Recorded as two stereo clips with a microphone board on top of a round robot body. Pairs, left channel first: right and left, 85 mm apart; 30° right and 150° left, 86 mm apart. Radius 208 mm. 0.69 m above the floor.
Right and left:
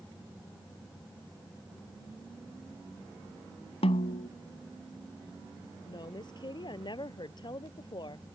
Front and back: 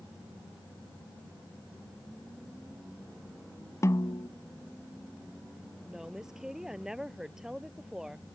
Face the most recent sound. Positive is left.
turn(degrees=-125)